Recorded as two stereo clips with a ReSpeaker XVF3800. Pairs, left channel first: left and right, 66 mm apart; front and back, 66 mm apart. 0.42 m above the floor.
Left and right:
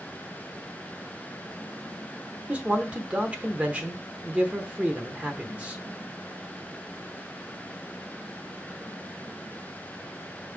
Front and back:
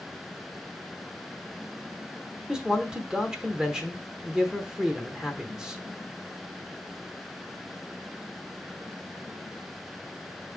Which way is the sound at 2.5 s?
115° right.